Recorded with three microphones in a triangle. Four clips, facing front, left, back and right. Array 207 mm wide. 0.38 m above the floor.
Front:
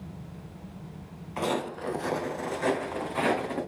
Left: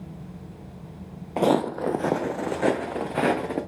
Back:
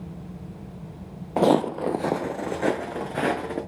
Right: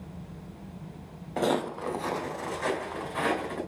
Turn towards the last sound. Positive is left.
turn(degrees=110)